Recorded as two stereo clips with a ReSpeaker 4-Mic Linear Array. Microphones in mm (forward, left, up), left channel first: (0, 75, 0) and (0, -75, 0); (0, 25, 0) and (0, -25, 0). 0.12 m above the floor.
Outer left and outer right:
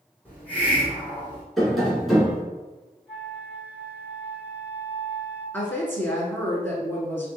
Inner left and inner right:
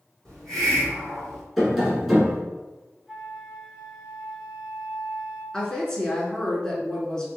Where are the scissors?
No scissors in this recording.